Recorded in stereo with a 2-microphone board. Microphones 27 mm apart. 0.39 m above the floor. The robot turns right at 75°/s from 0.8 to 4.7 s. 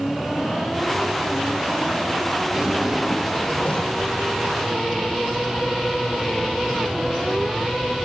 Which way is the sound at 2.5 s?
45° right.